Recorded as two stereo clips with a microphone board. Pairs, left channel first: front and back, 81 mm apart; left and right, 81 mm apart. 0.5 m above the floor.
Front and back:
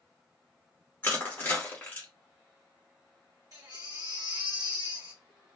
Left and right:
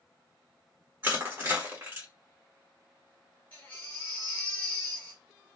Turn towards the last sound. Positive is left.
turn(degrees=150)